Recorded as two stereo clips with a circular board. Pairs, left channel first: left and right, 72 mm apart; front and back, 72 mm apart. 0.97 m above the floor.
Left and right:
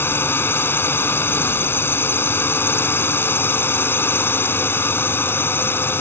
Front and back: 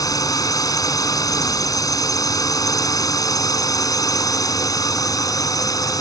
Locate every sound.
0.0 s a drone: 30° left